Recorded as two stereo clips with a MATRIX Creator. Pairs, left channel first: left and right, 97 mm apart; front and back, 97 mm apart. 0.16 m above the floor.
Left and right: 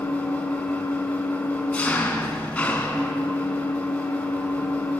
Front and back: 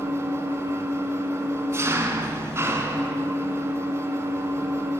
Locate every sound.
0.0 s an engine running: 160° left, 1.2 m